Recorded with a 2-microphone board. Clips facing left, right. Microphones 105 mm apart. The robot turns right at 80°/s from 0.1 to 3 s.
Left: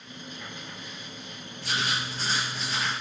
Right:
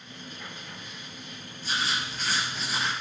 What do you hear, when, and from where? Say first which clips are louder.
1.6 s writing: left 1 dB; 100° left, 1.6 m; by 2.9 s 155° right, 1.6 m